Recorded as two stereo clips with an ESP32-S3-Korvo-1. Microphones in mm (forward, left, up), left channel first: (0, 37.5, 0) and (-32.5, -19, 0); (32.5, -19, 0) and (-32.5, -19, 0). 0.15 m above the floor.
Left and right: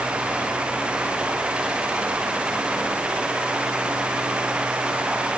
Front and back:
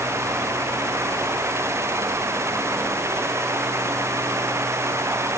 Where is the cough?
No cough in this recording.